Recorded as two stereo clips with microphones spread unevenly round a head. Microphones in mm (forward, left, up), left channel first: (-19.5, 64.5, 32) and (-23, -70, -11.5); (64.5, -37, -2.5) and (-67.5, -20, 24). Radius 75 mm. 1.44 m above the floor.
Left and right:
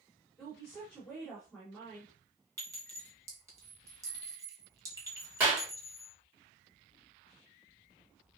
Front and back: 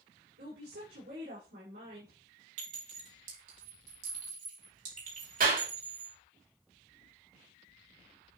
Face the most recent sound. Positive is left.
turn(degrees=-170)